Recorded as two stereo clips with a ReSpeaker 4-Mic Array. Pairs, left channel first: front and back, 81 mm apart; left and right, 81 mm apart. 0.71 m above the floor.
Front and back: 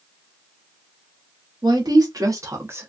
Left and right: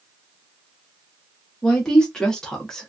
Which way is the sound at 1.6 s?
170° left.